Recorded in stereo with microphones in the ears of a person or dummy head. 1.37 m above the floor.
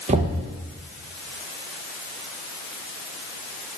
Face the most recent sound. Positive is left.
turn(degrees=-25)  # may be behind; listen again after turning